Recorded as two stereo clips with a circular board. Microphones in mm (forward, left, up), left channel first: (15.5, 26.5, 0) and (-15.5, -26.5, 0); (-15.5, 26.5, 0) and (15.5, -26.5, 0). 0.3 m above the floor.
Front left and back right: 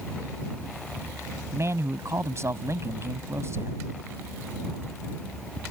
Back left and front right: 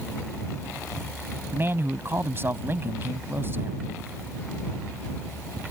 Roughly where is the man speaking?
Right.